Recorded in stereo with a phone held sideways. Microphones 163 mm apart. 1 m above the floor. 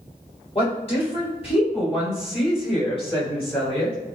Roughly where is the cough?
I don't hear a cough.